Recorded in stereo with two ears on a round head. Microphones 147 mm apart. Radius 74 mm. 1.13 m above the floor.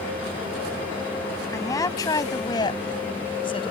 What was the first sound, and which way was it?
A woman speaking, 20° left (ahead or behind).